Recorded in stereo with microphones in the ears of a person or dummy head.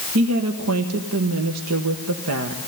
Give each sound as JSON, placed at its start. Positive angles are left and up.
{"t": 0.1, "sound": "a woman speaking", "side_deg": -80, "distance_m": 1.5}